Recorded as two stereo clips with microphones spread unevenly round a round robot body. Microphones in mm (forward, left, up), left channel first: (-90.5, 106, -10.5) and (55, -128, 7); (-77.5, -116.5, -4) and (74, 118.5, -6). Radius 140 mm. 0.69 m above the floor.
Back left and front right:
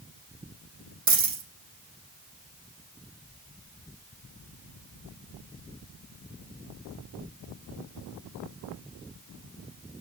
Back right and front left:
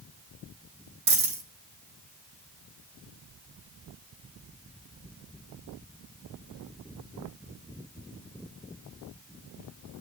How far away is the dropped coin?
About 4 m.